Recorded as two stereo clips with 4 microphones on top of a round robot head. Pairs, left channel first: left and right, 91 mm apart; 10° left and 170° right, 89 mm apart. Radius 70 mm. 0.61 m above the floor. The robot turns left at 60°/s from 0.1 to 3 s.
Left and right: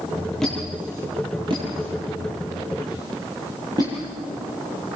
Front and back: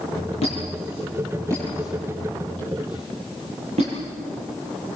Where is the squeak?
5° left, 9 m; by 4.0 s 150° right, 9 m.